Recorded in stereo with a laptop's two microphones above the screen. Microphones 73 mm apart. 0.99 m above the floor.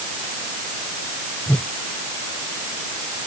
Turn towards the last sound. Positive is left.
turn(degrees=15)  # may be behind; listen again after turning